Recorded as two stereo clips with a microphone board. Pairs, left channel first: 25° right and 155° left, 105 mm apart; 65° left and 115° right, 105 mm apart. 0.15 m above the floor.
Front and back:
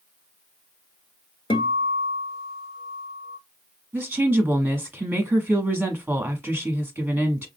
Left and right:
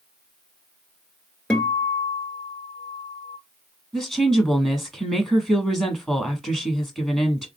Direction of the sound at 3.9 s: 155° left.